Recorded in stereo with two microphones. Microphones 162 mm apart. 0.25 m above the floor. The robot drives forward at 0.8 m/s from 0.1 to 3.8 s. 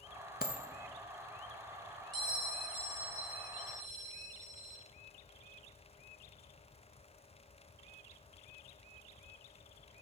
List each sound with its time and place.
0.4 s a dropped coin: 65° left (ahead or behind), 0.6 m; by 0.7 s 50° left (ahead or behind), 0.7 m
2.1 s a bell: 30° right (ahead or behind), 1.8 m; by 4.8 s 45° right (ahead or behind), 1.2 m